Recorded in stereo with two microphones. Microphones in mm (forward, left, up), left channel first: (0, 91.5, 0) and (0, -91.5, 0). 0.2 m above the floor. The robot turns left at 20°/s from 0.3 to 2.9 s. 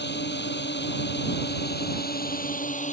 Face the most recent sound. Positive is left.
turn(degrees=45)